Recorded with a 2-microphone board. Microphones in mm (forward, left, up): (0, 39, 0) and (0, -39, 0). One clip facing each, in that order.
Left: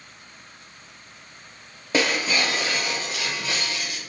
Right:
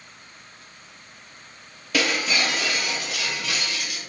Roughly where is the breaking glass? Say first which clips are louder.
Left 1 dB; left.